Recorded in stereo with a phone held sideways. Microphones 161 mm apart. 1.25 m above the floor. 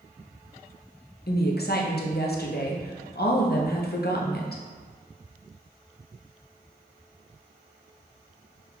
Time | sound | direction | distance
1.3 | a woman speaking | 70° left (ahead or behind) | 0.8 m